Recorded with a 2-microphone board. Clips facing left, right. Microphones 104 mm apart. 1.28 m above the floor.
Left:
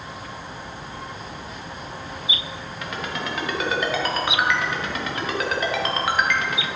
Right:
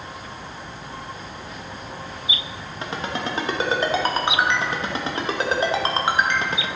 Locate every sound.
2.8 s a ringtone: 30° right (ahead or behind), 1.1 m